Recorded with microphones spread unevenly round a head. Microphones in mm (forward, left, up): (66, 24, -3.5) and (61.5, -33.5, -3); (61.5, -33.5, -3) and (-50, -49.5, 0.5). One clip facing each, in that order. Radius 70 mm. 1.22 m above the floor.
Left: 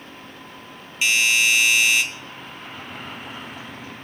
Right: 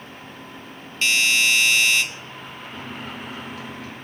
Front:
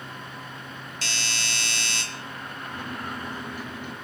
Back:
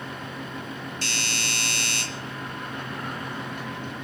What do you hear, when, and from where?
1.0 s a doorbell: 5° left, 2.0 m
2.7 s a microwave: 70° right, 1.8 m